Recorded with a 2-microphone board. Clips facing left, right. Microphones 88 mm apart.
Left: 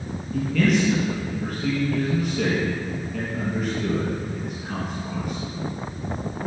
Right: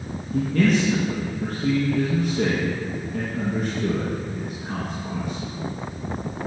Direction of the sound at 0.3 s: 30° right (ahead or behind).